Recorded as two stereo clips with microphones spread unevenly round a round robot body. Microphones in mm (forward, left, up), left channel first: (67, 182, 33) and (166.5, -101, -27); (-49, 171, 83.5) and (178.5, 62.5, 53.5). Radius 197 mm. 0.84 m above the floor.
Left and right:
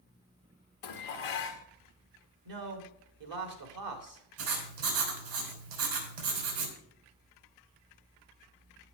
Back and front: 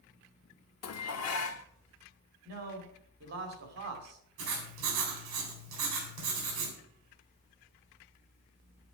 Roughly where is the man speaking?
Right.